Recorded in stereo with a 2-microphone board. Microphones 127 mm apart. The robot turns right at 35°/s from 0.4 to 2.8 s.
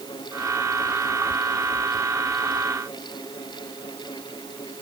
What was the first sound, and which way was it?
Only background noise.